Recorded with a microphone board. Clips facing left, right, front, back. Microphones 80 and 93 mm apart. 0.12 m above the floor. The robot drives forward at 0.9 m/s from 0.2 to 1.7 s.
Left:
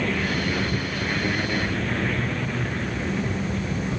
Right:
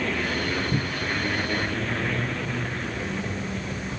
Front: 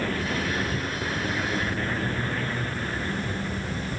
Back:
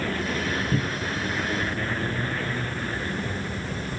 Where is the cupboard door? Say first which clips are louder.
Left 1 dB, back 2 dB; 155° right; by 1.2 s 160° right.